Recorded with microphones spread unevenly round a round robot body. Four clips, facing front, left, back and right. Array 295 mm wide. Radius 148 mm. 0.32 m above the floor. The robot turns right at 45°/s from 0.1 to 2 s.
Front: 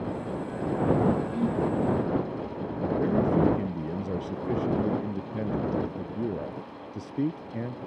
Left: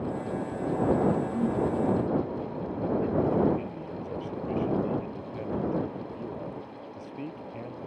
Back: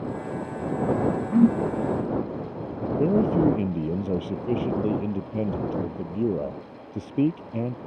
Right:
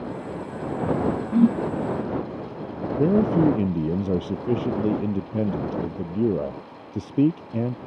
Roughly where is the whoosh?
Behind right.